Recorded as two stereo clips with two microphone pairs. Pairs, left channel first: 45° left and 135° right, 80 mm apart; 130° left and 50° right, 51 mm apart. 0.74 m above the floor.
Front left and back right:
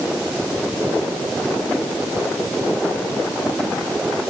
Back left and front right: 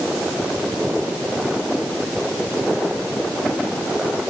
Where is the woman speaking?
I don't hear a woman speaking.